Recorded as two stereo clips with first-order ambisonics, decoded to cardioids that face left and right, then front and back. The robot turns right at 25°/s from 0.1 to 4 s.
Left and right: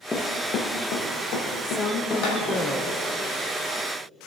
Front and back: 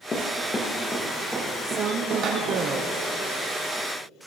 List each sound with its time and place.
0.1 s running footsteps: 35° left, 1.1 m; by 2.6 s 130° left, 3.5 m
1.6 s a woman speaking: 135° left, 0.7 m; by 3.1 s 170° left, 0.7 m